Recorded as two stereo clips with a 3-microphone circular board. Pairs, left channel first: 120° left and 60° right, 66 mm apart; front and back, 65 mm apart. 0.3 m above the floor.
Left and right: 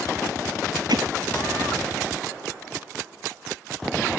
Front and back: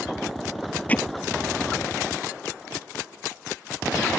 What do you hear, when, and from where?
0.9 s hammering: 70° right